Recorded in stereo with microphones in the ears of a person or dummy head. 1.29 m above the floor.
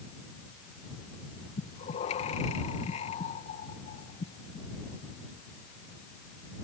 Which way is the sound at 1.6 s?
35° left (ahead or behind).